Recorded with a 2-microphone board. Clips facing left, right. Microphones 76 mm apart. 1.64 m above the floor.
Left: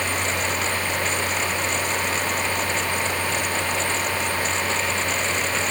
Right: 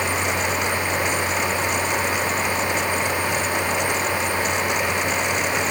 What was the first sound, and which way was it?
Only background noise.